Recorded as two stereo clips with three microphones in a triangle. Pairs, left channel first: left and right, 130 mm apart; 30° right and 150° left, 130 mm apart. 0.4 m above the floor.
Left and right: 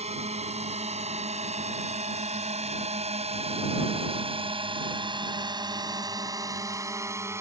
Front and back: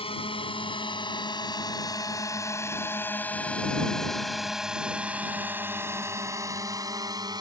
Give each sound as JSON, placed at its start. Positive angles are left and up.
{"t": 0.0, "sound": "a drone", "azimuth_deg": -70}